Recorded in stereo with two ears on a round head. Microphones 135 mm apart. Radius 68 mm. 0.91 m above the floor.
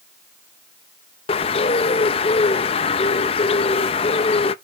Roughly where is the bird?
Left.